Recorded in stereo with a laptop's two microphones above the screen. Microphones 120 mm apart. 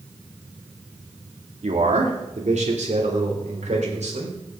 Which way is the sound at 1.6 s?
70° right (ahead or behind).